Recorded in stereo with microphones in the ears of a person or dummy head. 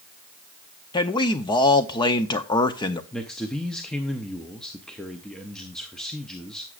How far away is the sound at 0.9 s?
About 0.6 m.